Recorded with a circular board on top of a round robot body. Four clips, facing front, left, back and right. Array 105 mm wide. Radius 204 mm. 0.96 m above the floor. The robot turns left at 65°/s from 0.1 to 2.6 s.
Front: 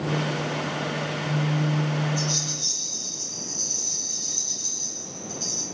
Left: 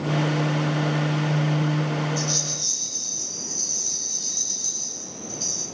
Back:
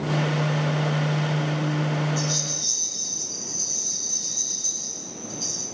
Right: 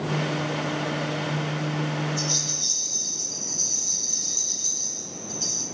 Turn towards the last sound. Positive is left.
turn(degrees=90)